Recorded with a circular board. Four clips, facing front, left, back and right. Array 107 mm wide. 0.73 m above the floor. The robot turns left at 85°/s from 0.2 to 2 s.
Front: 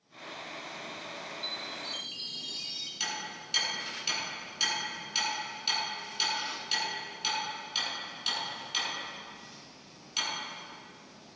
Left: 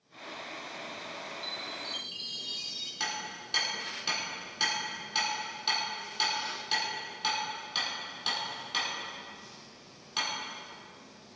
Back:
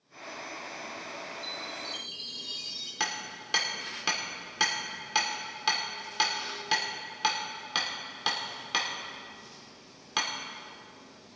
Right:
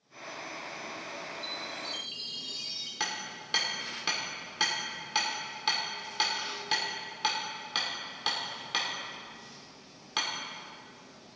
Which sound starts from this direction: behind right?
Hammering, at 3.0 s.